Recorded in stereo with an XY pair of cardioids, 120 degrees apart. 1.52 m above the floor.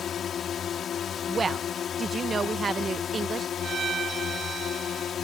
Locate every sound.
0.0 s a drone: 45° left
1.3 s a woman speaking: 35° right
3.6 s a violin: 45° right